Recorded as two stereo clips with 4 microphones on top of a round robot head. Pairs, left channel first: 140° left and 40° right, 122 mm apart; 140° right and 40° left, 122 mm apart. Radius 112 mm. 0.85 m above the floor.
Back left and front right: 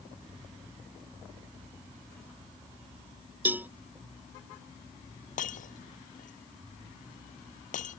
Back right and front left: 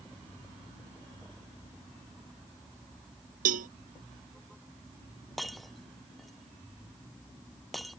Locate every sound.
3.5 s a cowbell: 35° left
5.4 s breaking glass: 130° left